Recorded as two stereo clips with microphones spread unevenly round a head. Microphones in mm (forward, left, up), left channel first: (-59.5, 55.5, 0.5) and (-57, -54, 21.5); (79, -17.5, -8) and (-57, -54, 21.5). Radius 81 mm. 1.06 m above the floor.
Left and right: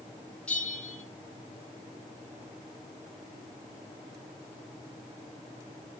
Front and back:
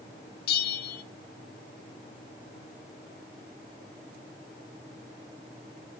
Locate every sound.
0.5 s a bell: straight ahead, 0.8 m